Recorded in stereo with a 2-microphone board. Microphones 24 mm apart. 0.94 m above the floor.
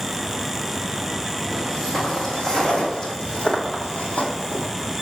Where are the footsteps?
15° left (ahead or behind), 2.5 m; by 4.7 s 55° left (ahead or behind), 2 m.